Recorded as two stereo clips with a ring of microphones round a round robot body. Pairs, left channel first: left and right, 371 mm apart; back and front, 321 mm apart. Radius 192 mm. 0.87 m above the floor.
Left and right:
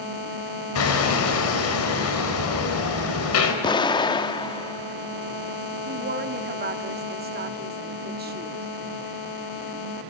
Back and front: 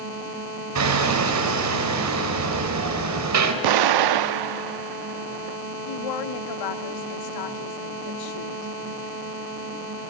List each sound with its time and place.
0.8 s hammering: 35° left, 3.5 m
3.6 s an explosion: 10° left, 0.8 m
5.9 s a woman speaking: 155° right, 1.6 m